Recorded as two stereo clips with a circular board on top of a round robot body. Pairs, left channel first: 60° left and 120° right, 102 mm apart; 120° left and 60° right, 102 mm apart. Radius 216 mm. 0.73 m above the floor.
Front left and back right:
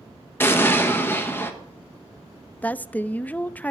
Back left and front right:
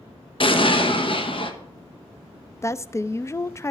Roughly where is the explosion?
Behind left.